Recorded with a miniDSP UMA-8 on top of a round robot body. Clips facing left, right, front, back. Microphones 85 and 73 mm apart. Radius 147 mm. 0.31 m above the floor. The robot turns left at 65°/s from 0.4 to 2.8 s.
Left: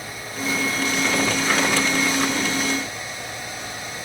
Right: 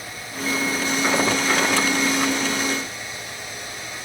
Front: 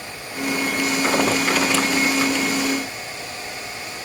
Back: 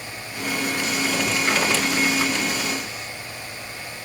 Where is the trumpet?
I don't hear a trumpet.